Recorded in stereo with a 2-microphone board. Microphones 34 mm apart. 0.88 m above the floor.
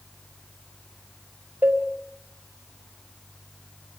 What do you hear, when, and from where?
1.6 s a cowbell: 75° right (ahead or behind), 2 m